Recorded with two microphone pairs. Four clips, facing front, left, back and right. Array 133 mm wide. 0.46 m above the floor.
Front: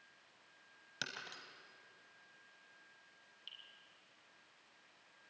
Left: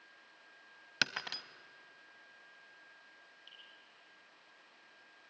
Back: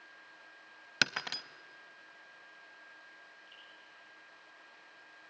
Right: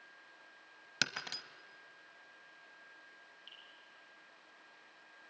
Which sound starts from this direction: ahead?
Dripping, at 3.5 s.